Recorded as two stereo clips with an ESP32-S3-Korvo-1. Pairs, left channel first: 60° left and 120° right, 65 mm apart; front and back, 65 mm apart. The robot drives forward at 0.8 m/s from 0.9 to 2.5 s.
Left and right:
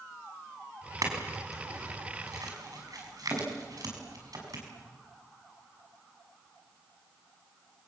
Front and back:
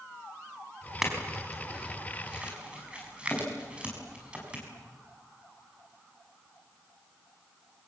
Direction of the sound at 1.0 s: 95° right.